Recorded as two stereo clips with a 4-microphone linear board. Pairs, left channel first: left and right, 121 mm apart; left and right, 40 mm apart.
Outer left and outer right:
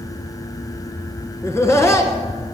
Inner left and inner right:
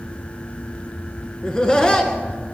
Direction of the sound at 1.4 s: 25° left (ahead or behind).